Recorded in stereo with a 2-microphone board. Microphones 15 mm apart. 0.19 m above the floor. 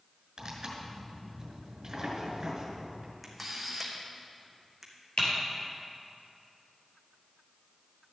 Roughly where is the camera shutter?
Centre.